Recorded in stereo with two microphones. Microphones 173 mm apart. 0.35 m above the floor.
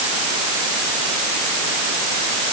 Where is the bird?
I don't hear a bird.